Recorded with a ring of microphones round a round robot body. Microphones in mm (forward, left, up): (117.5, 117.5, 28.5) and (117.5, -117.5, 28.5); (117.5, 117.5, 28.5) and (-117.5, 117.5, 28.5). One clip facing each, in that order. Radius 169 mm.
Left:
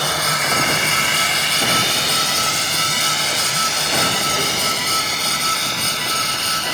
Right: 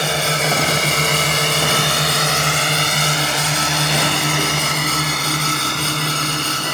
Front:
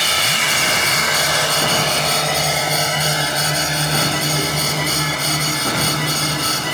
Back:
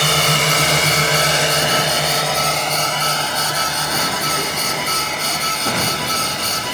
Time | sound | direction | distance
0.0 | a drone | 155° right | ?